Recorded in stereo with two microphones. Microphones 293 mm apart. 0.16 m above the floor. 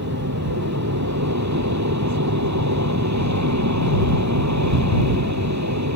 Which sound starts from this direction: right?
An aircraft, at 0.0 s.